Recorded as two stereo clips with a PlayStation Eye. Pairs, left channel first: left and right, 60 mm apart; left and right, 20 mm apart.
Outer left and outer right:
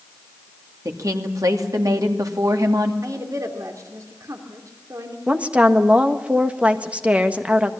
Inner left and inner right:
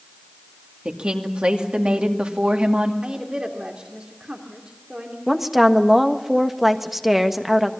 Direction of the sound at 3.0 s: 65° right (ahead or behind).